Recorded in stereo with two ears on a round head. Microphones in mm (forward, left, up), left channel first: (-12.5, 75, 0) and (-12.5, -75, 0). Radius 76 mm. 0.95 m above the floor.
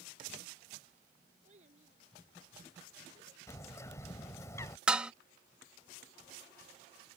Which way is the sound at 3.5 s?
20° left (ahead or behind).